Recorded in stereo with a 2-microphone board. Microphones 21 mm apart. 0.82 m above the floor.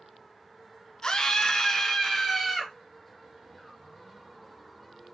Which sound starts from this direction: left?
A scream, at 1.0 s.